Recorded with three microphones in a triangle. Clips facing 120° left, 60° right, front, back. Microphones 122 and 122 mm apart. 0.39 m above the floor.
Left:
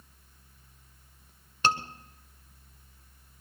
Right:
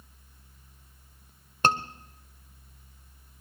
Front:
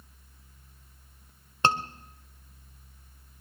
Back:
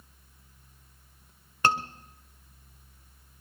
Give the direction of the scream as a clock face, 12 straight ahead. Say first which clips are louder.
Right 2 dB, even; 2 o'clock.